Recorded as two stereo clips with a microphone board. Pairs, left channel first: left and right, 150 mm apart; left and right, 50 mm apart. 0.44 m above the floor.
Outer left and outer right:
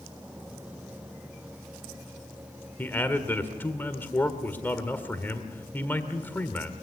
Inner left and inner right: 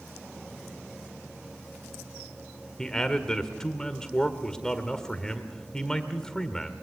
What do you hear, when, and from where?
2.8 s a man speaking: 15° left (ahead or behind), 1.8 m